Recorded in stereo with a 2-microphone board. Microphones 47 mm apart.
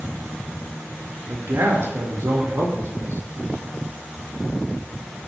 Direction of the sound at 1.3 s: 65° right (ahead or behind).